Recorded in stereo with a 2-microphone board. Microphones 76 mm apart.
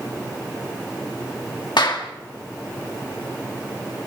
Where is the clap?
80° left, 2 m.